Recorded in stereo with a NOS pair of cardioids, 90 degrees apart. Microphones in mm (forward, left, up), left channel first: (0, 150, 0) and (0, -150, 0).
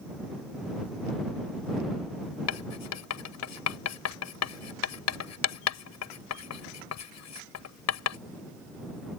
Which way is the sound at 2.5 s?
60° left.